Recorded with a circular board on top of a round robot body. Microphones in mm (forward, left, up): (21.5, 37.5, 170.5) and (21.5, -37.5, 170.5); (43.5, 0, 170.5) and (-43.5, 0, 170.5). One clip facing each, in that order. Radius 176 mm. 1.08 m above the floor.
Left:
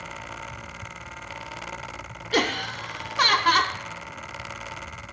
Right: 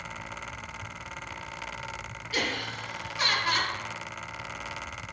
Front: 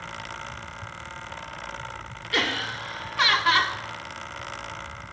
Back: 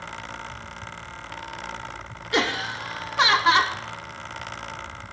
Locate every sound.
2.3 s laughter: 115° left, 0.5 m